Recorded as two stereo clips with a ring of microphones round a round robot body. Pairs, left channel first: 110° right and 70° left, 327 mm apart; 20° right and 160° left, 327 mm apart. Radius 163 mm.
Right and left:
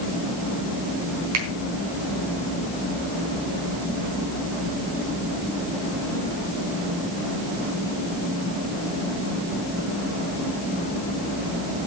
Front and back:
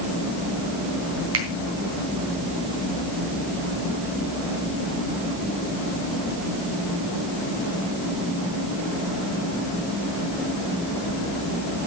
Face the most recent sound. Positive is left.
turn(degrees=110)